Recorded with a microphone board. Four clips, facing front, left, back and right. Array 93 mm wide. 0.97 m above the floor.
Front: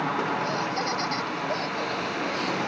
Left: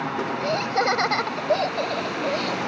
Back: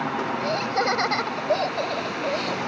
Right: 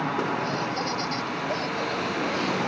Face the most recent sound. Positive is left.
turn(degrees=130)